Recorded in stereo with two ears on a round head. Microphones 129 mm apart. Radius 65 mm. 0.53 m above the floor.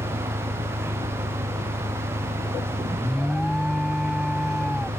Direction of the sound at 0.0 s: 65° right (ahead or behind).